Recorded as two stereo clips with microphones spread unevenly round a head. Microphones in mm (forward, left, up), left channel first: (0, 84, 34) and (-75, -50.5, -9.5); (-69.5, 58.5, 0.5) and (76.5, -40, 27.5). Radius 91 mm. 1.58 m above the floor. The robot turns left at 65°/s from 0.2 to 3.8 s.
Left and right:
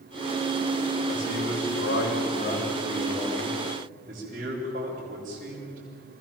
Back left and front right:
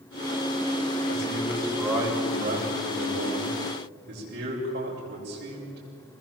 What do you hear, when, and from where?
1.1 s a man speaking: 105° left, 6.5 m; by 5.8 s 70° right, 6.5 m